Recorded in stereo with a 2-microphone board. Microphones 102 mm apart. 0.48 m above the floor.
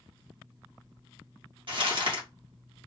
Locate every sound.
1.7 s crumpling: 55° right (ahead or behind), 1.3 m